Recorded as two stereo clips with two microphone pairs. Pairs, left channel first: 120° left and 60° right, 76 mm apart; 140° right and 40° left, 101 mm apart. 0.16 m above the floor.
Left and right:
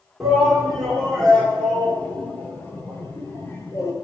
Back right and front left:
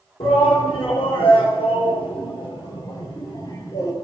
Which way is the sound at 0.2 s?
150° right.